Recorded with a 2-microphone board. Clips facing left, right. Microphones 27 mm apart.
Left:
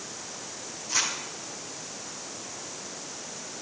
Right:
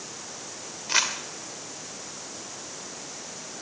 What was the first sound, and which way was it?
Crumpling, 55° right (ahead or behind).